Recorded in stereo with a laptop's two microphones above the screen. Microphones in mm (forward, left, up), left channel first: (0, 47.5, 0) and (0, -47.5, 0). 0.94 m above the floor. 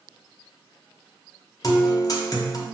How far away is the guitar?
About 0.5 m.